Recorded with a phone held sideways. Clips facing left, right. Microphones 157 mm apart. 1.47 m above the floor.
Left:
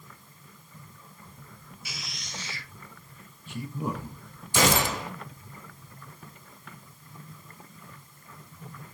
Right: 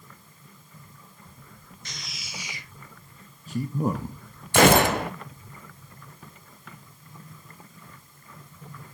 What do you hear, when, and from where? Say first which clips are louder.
1.9 s a man speaking: even; 10° left (ahead or behind), 0.9 m; by 4.2 s 50° right (ahead or behind), 1.5 m
4.5 s a gunshot: right 7 dB; 60° right (ahead or behind), 0.5 m